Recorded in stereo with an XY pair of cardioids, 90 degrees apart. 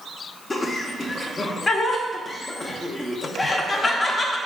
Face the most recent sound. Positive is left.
turn(degrees=40)